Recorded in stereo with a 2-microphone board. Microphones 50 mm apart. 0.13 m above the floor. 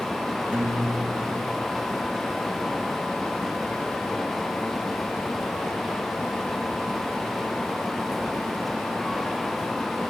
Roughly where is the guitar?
Right.